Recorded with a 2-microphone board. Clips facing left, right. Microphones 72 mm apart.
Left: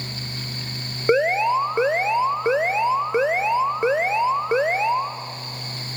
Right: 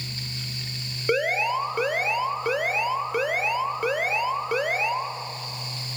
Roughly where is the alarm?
Left.